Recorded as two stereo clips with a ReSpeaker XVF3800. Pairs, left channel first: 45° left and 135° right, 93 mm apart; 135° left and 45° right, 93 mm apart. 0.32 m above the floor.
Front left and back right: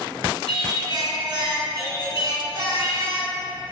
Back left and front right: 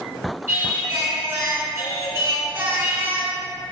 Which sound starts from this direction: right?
Singing, at 0.5 s.